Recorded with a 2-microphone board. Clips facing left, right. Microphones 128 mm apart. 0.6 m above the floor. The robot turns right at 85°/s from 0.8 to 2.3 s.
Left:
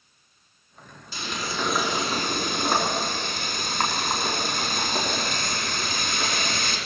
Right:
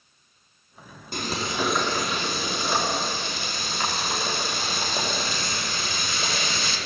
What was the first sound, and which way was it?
Frying, 50° right.